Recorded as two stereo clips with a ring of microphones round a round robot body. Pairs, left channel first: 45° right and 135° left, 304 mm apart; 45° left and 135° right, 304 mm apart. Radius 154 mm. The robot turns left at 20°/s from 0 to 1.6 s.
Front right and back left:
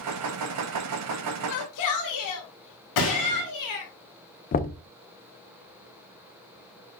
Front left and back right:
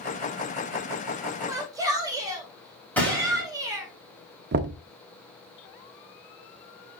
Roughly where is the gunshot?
Ahead right.